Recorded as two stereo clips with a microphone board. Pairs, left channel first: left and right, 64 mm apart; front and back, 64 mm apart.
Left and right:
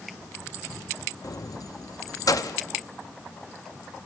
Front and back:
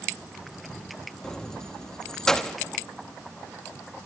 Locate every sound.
1.2 s keys jangling: 80° left, 0.9 m